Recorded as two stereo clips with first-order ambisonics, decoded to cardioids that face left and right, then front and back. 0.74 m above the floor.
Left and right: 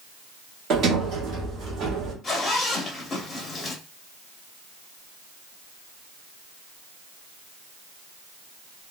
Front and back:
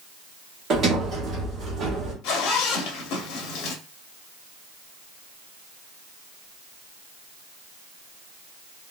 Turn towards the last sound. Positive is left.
turn(degrees=20)